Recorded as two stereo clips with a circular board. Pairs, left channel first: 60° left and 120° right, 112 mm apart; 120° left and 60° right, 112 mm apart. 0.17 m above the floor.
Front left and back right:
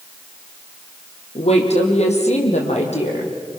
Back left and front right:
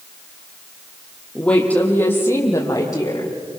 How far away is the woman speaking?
About 6 m.